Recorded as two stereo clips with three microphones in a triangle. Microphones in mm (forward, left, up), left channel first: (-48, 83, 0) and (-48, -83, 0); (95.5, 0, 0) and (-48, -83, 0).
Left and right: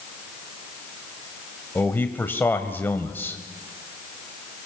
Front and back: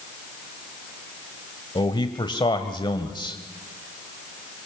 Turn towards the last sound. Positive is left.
turn(degrees=25)